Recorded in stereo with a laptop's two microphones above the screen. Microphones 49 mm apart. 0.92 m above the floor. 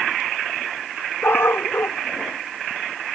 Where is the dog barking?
50° left (ahead or behind).